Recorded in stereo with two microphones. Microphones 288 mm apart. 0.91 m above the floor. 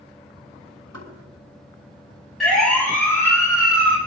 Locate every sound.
0.9 s knocking: 70° right (ahead or behind), 7 m
2.4 s a siren: centre (ahead or behind), 7.5 m; by 4.0 s 15° left (ahead or behind), 7 m